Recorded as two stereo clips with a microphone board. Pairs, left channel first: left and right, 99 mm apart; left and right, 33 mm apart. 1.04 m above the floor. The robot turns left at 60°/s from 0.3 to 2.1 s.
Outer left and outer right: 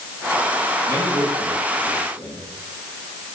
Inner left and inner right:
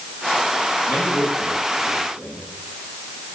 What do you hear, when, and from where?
0.9 s a man speaking: 30° left (ahead or behind), 8 m; by 2.4 s 75° left (ahead or behind), 8 m